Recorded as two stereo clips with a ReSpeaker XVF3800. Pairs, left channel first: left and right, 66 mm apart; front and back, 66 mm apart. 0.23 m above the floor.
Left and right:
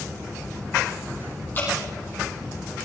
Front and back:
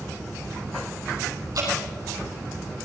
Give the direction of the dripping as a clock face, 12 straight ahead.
7 o'clock.